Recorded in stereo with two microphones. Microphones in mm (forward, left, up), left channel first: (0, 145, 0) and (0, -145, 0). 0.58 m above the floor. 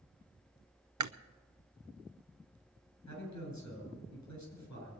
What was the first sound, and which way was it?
Chewing, 80° right.